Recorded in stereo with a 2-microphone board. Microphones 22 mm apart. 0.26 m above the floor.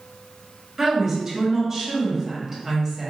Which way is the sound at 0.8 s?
15° right (ahead or behind).